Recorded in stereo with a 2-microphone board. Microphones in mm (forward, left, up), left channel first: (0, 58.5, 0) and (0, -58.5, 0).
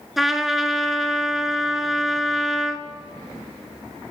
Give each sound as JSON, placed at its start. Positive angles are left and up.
{"t": 0.2, "sound": "a trumpet", "side_deg": -5, "distance_m": 0.6}